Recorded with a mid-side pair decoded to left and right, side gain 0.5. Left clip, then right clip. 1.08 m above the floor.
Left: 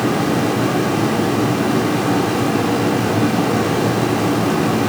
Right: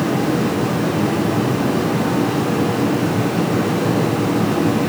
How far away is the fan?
About 3.5 m.